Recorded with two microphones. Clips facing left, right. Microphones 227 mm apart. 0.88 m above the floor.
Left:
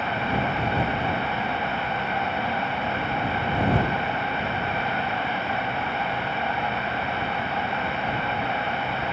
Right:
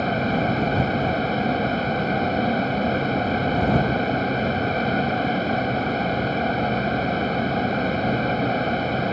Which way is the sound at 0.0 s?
35° right (ahead or behind).